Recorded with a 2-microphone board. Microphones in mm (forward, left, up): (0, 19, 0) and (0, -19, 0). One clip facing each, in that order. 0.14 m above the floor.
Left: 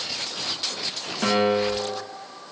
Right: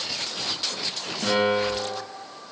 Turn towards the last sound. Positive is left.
turn(degrees=35)  # may be behind; listen again after turning